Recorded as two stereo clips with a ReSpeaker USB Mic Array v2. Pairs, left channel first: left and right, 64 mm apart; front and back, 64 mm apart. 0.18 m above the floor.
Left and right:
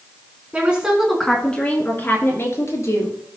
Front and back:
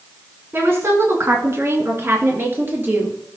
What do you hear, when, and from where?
0.5 s a woman speaking: 145° right, 1.8 m; by 3.2 s 125° left, 3.5 m